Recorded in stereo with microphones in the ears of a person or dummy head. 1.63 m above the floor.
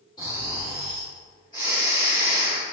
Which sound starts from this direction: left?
Snoring, at 0.2 s.